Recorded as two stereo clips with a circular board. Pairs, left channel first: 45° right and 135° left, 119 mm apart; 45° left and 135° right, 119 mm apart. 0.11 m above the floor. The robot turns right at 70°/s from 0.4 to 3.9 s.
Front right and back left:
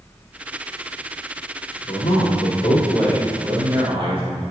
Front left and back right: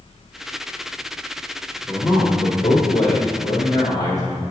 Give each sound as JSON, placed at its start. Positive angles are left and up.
{"t": 1.9, "sound": "a man speaking", "azimuth_deg": -50, "distance_m": 2.5}